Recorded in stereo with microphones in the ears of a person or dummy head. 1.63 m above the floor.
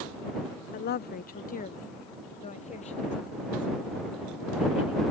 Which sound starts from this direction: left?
A woman speaking, at 0.7 s.